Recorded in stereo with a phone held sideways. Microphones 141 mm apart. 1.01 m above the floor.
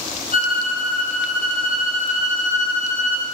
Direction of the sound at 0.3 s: 70° left (ahead or behind).